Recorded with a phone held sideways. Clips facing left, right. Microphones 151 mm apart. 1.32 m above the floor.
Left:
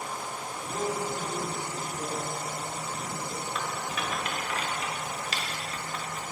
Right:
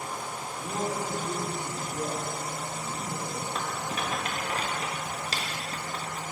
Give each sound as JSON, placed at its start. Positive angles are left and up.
{"t": 0.6, "sound": "a man speaking", "side_deg": -85, "distance_m": 3.0}
{"t": 3.5, "sound": "a rattle", "side_deg": -35, "distance_m": 1.0}